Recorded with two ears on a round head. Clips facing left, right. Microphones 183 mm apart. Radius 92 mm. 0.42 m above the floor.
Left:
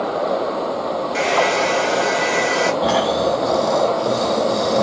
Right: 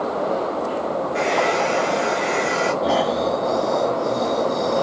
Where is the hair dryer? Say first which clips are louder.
Left 2 dB; 70° left (ahead or behind), 1.5 m.